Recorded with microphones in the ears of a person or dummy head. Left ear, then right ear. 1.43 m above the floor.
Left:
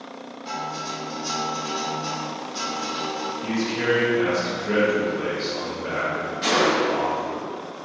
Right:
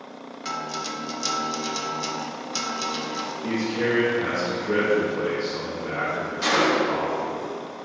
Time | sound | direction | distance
0.5 | a guitar | 55° right (ahead or behind) | 0.6 m
3.4 | a man speaking | 65° left (ahead or behind) | 0.9 m
6.4 | a gunshot | 20° right (ahead or behind) | 1.1 m